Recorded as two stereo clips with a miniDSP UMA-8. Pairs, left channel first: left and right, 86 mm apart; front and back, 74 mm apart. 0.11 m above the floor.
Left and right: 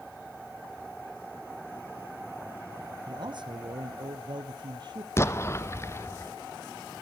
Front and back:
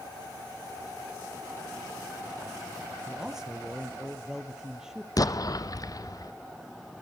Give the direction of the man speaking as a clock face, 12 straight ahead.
3 o'clock.